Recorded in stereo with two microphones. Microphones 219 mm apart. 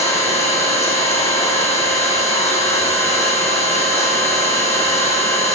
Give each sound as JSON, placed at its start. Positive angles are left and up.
{"t": 0.0, "sound": "an engine running", "side_deg": 30, "distance_m": 5.0}